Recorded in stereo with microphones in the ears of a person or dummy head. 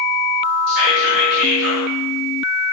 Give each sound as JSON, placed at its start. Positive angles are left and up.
{"t": 0.7, "sound": "whispering", "side_deg": -60, "distance_m": 1.1}